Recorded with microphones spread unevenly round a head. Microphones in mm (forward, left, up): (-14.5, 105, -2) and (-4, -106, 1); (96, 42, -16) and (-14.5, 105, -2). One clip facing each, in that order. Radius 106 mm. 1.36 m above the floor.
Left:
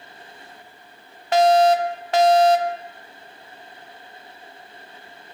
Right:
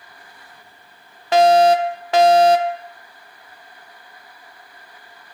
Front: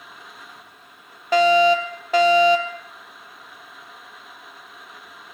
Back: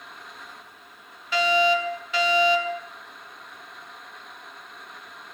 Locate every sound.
1.3 s a fire alarm: 85° right, 2 m